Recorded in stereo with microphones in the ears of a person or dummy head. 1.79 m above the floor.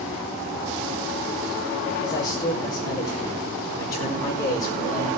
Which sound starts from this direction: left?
A man speaking, at 2.0 s.